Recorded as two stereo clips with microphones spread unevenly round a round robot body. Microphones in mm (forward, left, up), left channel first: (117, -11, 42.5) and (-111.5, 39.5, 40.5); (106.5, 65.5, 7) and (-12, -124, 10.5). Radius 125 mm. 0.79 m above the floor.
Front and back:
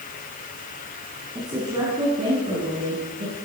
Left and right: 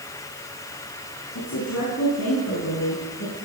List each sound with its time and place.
1.4 s a woman speaking: 90° left, 8 m; by 3.4 s 110° left, 9 m